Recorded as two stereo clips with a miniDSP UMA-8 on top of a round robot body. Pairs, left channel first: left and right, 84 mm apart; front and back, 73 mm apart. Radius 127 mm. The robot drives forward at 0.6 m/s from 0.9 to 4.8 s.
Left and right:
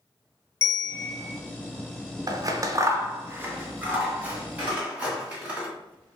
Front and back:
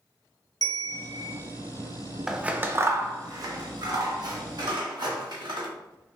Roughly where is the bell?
Ahead left.